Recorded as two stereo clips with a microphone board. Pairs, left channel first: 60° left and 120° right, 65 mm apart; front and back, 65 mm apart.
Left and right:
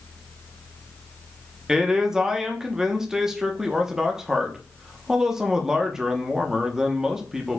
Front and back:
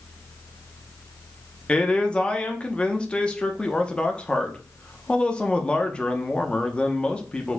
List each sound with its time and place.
1.7 s a man speaking: 55° right, 0.7 m